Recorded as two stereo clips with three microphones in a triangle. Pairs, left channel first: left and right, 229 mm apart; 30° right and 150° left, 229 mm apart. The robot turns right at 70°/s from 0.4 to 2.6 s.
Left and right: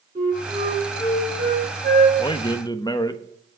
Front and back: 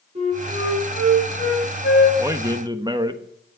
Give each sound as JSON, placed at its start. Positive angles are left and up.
{"t": 0.1, "sound": "a flute", "azimuth_deg": -150, "distance_m": 8.0}
{"t": 2.2, "sound": "a man speaking", "azimuth_deg": 95, "distance_m": 1.1}